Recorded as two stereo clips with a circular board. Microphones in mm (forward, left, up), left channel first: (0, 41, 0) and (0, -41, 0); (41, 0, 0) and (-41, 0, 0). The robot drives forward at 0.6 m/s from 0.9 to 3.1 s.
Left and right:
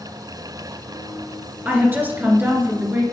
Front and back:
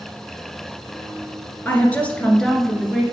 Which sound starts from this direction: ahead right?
A woman speaking, at 1.6 s.